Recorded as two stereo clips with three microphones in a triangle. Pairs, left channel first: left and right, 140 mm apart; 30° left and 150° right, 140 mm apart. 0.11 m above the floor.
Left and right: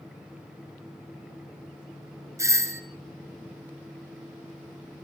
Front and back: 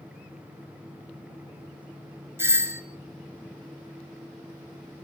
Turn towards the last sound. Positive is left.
turn(degrees=-110)